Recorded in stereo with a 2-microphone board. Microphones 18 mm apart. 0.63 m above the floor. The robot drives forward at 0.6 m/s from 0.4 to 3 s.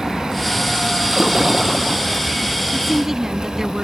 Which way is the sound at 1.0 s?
25° right (ahead or behind).